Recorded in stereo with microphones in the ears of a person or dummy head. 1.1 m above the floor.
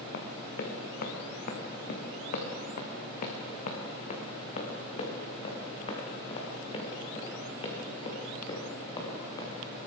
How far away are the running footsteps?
About 5.5 m.